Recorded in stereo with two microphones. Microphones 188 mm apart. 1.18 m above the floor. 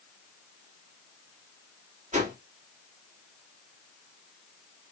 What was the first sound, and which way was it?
A whoosh, 40° right (ahead or behind).